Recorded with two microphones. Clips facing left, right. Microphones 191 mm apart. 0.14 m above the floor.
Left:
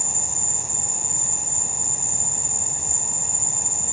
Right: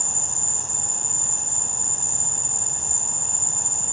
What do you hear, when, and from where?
0.0 s an insect: 70° right (ahead or behind)